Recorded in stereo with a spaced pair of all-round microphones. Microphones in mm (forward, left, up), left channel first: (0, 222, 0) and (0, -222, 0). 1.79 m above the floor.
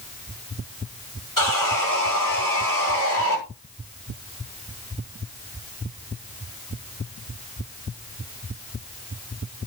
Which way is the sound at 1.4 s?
50° left (ahead or behind).